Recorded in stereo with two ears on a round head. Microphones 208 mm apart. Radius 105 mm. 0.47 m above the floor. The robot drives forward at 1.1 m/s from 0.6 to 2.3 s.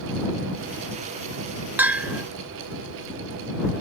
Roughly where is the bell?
Centre.